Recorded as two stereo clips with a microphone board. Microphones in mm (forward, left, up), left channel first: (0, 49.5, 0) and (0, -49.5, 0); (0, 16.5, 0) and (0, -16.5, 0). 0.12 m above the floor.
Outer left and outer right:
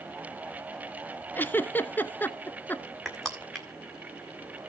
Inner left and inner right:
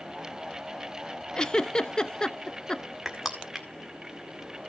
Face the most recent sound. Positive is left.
turn(degrees=5)  # may be behind; listen again after turning